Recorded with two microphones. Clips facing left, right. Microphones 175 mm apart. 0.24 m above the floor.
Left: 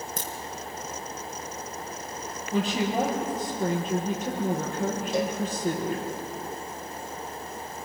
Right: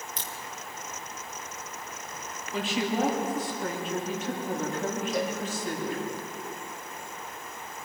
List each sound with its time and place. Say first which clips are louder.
0.2 s a crack: left 5 dB; 45° left (ahead or behind), 3 m
2.5 s a woman speaking: left 3 dB; 40° left (ahead or behind), 7 m
5.1 s a cowbell: left 4 dB; 30° left (ahead or behind), 4 m